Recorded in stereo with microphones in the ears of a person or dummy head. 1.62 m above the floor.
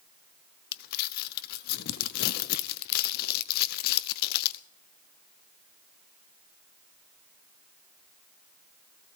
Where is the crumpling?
50° left (ahead or behind), 0.7 m.